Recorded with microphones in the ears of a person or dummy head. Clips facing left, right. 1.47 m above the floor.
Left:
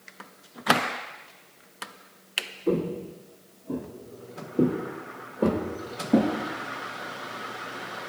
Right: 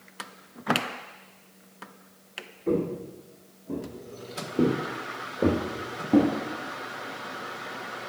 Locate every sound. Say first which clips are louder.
2.7 s footsteps: even; 10° left (ahead or behind), 1.5 m; by 6.3 s 5° right (ahead or behind), 1.9 m